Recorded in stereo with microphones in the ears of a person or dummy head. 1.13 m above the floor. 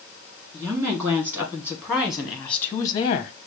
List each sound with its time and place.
0.5 s a woman speaking: 20° right (ahead or behind), 2.5 m; by 3.3 s 40° left (ahead or behind), 0.6 m